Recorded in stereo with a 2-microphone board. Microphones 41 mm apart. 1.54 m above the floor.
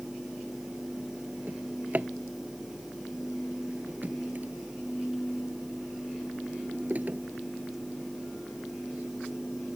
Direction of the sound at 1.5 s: 40° right (ahead or behind).